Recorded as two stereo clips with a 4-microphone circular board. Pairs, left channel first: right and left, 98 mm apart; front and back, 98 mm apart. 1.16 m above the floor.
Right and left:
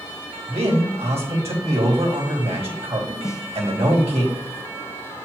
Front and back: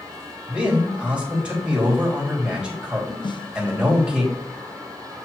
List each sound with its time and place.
0.5 s a man speaking: 100° left, 3 m
3.2 s a snare drum: 35° right, 0.6 m